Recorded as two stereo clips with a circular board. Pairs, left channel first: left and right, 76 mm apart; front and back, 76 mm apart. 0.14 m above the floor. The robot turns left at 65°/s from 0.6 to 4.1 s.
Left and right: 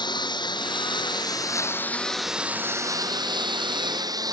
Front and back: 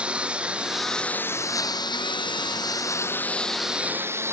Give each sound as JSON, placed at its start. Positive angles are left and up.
{"t": 0.0, "sound": "a lawn mower", "azimuth_deg": 105}